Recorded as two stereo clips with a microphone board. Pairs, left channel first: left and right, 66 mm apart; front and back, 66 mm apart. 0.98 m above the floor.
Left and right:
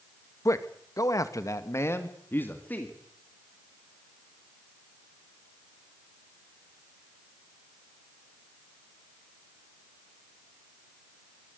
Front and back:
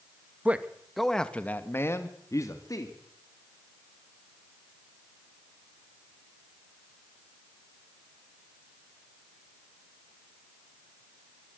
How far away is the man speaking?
About 1.7 m.